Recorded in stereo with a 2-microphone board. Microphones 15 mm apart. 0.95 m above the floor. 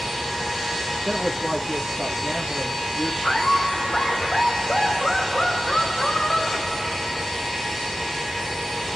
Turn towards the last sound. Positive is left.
turn(degrees=70)  # may be behind; listen again after turning